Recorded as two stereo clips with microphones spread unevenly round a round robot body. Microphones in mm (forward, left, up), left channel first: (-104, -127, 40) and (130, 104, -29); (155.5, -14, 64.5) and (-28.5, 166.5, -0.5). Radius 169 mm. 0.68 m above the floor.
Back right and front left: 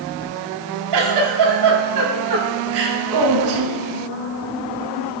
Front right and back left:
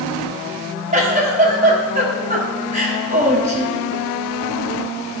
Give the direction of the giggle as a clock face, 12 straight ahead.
9 o'clock.